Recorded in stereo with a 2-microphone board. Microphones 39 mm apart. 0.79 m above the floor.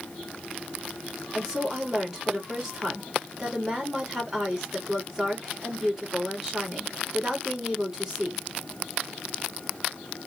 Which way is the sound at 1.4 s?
10° right (ahead or behind).